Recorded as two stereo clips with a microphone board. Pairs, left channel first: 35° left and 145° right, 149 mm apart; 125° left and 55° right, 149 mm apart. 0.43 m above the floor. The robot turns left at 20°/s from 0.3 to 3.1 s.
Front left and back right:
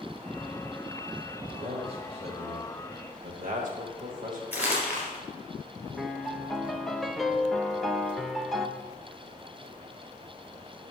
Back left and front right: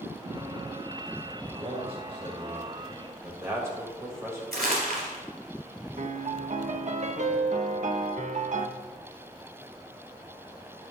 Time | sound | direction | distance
1.5 | a man speaking | 95° right | 1.5 m
4.5 | crumpling | 65° right | 3.5 m
6.0 | a piano | 55° right | 0.7 m